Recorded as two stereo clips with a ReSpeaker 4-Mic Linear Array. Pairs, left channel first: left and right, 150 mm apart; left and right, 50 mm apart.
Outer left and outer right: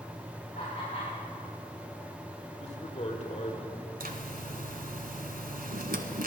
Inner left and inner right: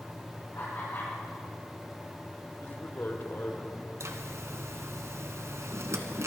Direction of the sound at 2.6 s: 45° left (ahead or behind).